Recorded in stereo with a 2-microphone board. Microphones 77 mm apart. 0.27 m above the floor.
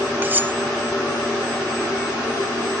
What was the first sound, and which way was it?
Cutlery clinking, 25° right (ahead or behind).